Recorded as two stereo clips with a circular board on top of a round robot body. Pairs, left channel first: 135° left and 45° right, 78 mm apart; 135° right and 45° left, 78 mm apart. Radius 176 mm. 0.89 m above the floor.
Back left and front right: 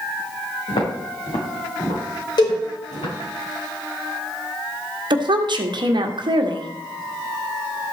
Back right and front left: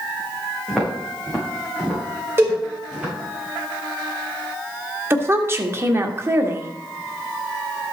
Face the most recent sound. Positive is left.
turn(degrees=-15)